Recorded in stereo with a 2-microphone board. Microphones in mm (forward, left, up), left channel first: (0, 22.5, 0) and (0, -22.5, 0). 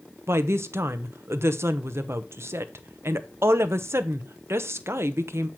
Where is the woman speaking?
70° right (ahead or behind), 1.0 m.